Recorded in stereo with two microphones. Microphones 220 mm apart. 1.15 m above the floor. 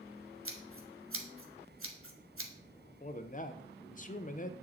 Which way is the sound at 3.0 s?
35° left (ahead or behind).